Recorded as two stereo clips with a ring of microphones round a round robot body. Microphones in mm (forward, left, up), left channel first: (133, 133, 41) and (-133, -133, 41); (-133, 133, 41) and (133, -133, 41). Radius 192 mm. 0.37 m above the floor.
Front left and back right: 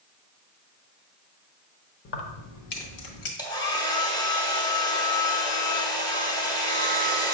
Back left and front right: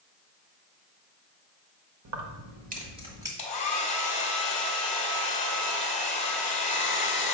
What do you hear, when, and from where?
2.0 s keys jangling: 10° right, 1.0 m; by 3.3 s 35° left, 1.7 m
3.4 s a hair dryer: 105° left, 1.4 m